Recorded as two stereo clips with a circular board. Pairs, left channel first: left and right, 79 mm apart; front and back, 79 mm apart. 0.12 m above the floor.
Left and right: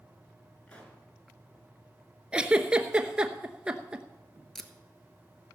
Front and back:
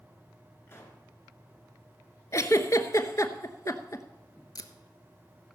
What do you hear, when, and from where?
0.7 s a pop: 25° left, 2 m
2.3 s a giggle: 20° right, 0.8 m
4.5 s tape being pulled: 5° left, 0.8 m